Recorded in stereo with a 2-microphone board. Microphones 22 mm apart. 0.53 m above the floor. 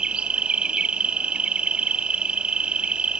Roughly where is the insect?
Right.